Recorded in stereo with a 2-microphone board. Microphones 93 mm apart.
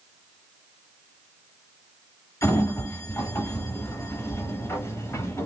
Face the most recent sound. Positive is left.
turn(degrees=30)  # may be behind; listen again after turning